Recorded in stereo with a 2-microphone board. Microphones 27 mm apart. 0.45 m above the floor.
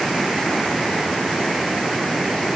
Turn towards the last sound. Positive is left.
No sound to turn to.